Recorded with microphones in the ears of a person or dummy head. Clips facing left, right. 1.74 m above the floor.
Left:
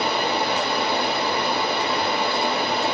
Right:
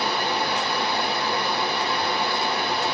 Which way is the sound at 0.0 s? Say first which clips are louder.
Left 2 dB; 20° left (ahead or behind).